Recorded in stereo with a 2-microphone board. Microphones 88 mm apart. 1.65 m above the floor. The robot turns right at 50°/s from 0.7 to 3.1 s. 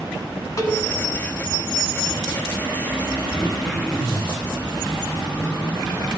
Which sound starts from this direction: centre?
Throat clearing, at 3.3 s.